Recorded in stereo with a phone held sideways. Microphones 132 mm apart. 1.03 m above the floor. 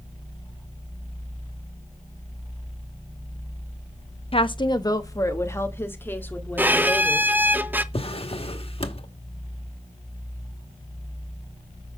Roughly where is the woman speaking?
Left.